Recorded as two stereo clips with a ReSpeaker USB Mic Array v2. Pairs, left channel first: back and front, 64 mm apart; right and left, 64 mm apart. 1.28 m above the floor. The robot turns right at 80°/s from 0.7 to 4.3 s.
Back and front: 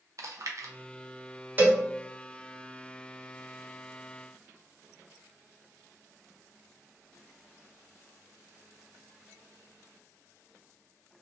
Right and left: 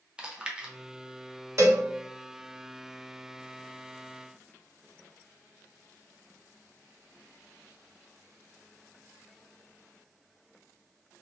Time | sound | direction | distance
0.2 | chewing | 15° left | 0.6 m
1.6 | a cowbell | 55° left | 0.8 m